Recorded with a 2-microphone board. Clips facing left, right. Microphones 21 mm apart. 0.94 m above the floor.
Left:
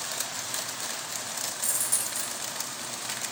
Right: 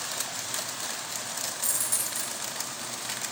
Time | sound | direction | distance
1.6 | a dropped coin | 5° left (ahead or behind) | 1.7 m